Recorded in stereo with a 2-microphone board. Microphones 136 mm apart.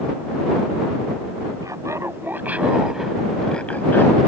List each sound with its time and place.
1.6 s laughter: 25° right (ahead or behind); by 4.2 s 20° left (ahead or behind)